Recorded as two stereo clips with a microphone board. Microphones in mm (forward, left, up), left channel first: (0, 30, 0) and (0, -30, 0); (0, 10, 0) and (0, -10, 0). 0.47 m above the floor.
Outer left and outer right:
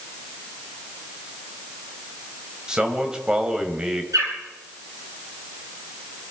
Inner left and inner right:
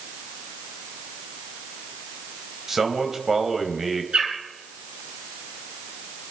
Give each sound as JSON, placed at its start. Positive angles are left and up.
{"t": 2.7, "sound": "a man speaking", "side_deg": -10, "distance_m": 2.5}
{"t": 4.1, "sound": "a bird", "side_deg": -75, "distance_m": 4.5}